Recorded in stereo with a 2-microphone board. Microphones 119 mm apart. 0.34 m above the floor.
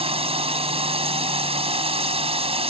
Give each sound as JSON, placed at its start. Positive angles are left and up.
{"t": 0.0, "sound": "a drone", "side_deg": -55}